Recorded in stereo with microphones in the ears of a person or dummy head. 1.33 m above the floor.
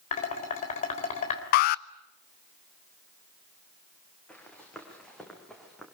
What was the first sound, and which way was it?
Dishes clattering, 45° left (ahead or behind).